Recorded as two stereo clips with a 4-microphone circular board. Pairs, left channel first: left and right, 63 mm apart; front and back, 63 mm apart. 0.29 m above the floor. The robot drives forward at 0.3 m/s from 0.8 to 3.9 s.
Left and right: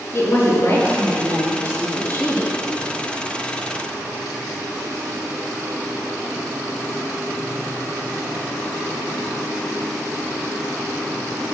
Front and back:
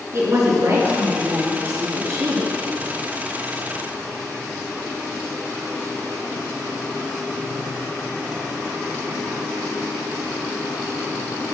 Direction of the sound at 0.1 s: 135° left.